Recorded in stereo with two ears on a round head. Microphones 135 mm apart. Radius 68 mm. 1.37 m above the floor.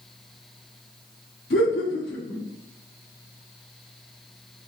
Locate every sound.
1.5 s laughter: 80° left, 1.8 m